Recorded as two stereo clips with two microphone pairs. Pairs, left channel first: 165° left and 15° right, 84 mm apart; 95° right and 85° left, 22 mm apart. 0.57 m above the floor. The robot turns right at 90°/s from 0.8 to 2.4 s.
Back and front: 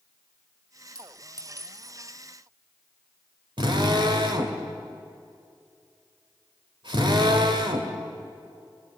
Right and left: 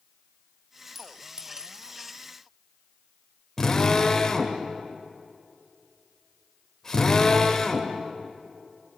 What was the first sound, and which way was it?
A clink, 5° right.